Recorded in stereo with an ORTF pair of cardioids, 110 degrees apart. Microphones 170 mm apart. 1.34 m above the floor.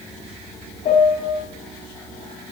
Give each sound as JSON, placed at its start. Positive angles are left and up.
{"t": 0.8, "sound": "a piano", "azimuth_deg": 50, "distance_m": 2.0}